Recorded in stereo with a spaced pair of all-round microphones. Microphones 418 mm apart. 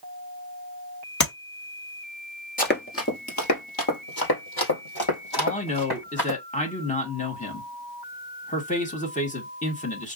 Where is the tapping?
45° left (ahead or behind), 1.8 m.